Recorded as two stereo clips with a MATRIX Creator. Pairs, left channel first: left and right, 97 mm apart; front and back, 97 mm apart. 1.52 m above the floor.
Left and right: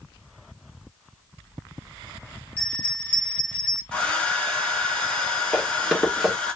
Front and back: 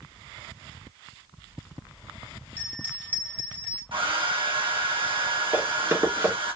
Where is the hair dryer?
165° left, 1.1 m.